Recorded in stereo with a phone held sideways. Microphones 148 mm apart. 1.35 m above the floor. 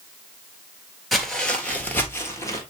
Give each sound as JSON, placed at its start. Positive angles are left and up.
{"t": 1.1, "sound": "footsteps", "side_deg": 0, "distance_m": 1.6}